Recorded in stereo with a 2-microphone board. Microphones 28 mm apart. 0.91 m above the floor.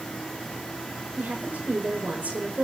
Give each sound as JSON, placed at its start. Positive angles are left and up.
{"t": 1.2, "sound": "a woman speaking", "side_deg": -70, "distance_m": 4.5}